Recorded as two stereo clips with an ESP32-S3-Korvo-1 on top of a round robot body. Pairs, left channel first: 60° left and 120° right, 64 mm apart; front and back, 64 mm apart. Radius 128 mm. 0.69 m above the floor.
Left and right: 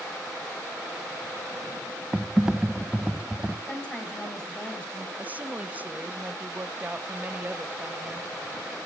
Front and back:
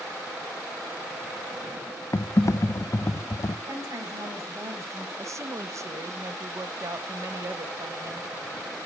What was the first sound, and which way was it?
Typing on a keyboard, 40° right.